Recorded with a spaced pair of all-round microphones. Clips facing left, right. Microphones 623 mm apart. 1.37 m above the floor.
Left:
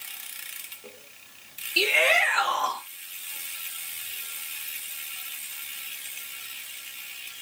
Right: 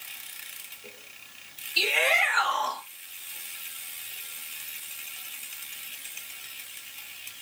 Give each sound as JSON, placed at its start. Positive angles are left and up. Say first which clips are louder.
{"t": 1.8, "sound": "a shout", "louder": "left 4 dB", "side_deg": 75, "distance_m": 3.5}